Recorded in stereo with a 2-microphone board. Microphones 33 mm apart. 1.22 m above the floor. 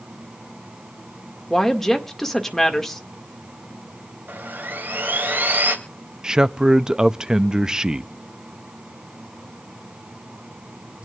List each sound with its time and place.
1.5 s a woman speaking: 10° left (ahead or behind), 2 m
4.3 s sawing: 75° right (ahead or behind), 2.5 m
6.2 s a man speaking: 20° right (ahead or behind), 0.5 m